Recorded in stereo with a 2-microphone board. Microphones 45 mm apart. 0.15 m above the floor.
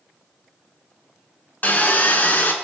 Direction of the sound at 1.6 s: 40° left (ahead or behind).